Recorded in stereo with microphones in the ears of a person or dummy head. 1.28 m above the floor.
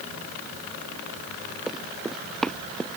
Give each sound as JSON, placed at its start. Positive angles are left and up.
{"t": 1.7, "sound": "running footsteps", "side_deg": 0}